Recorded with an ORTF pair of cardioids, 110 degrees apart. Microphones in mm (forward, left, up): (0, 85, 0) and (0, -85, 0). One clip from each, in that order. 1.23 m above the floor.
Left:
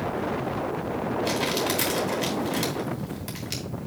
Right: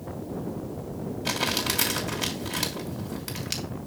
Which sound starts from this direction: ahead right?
Crumpling, at 1.2 s.